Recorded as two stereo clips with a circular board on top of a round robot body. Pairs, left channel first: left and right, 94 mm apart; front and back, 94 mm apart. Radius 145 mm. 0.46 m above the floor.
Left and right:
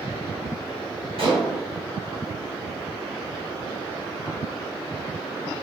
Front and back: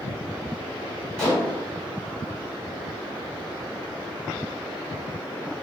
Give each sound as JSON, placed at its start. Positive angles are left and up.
{"t": 1.2, "sound": "dishes clattering", "azimuth_deg": -80, "distance_m": 1.8}